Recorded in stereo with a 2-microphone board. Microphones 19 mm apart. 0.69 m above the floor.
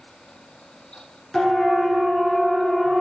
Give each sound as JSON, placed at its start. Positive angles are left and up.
{"t": 1.3, "sound": "a siren", "side_deg": 15, "distance_m": 7.5}